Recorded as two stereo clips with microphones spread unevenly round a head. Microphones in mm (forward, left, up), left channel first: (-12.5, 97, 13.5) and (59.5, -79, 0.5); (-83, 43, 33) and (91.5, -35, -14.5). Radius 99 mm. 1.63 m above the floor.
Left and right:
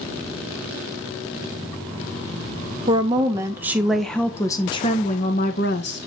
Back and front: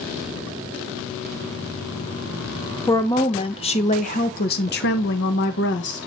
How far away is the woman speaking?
About 1.3 m.